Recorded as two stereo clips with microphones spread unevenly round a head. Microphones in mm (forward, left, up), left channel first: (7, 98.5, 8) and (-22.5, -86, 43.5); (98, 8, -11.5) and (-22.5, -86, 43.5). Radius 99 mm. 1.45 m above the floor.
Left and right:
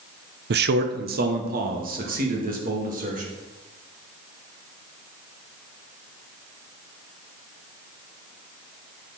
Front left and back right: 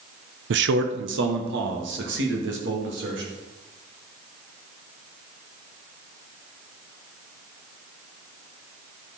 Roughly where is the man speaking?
Behind right.